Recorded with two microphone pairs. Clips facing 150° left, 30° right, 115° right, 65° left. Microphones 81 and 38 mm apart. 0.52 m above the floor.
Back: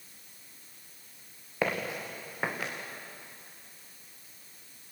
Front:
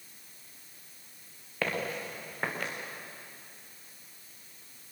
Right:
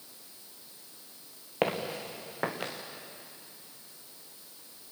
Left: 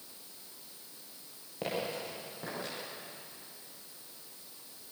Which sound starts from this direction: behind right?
Footsteps, at 1.6 s.